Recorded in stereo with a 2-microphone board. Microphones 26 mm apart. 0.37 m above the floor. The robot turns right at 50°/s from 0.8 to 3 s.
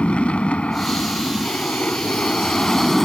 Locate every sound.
0.0 s an aircraft: 55° left; by 3.0 s 165° left